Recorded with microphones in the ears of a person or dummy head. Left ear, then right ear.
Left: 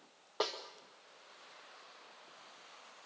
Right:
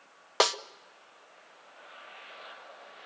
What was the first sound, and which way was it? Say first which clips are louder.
A snare drum: right 11 dB; 65° right (ahead or behind).